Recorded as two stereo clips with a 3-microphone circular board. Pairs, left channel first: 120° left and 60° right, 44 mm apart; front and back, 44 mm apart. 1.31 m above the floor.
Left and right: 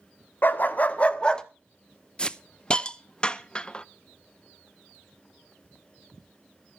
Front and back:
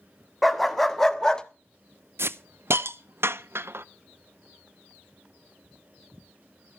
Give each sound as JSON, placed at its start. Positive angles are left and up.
{"t": 0.4, "sound": "a dog barking", "azimuth_deg": 90, "distance_m": 1.2}
{"t": 2.2, "sound": "a hiss", "azimuth_deg": -170, "distance_m": 0.5}